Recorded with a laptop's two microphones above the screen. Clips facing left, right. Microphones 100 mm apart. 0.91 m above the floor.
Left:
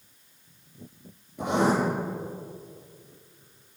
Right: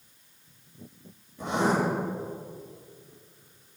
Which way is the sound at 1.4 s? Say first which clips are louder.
Left 3 dB; 75° left (ahead or behind).